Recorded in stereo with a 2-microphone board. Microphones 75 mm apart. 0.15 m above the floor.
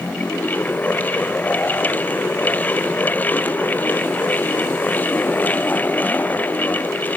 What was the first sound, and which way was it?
Only background noise.